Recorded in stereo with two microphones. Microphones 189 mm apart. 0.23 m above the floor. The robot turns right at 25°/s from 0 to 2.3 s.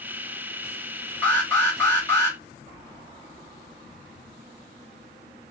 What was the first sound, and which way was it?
An alarm, 5° left (ahead or behind).